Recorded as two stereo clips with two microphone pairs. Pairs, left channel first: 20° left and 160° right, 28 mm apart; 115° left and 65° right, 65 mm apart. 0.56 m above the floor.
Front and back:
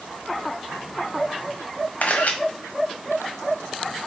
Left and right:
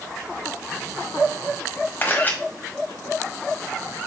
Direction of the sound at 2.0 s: 50° left.